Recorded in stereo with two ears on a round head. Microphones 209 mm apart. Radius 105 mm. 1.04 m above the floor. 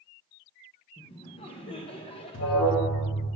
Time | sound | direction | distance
1.0 | laughter | 25° left (ahead or behind) | 0.5 m
2.3 | an alarm | 55° left (ahead or behind) | 1.1 m